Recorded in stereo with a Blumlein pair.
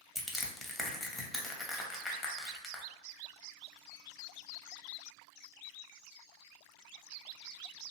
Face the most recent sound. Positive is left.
turn(degrees=10)